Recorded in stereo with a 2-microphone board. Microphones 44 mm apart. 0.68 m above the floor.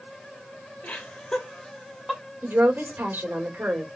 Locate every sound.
0.8 s laughter: 35° left (ahead or behind), 1.6 m; by 2.2 s 10° right (ahead or behind), 1.3 m
2.4 s a woman speaking: 50° right (ahead or behind), 1.8 m